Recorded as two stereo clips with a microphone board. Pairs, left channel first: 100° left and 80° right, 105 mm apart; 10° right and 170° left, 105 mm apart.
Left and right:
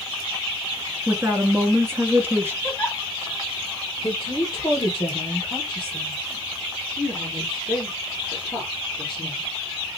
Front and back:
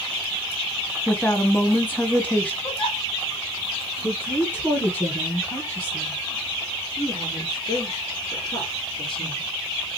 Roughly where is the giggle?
Ahead.